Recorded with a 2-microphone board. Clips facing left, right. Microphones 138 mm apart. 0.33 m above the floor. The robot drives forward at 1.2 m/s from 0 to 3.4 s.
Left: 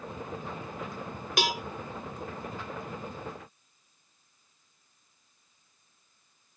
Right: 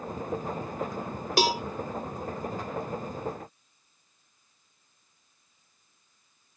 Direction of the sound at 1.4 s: 35° right (ahead or behind).